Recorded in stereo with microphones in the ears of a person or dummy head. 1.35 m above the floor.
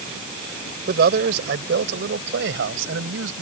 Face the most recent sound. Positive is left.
turn(degrees=-80)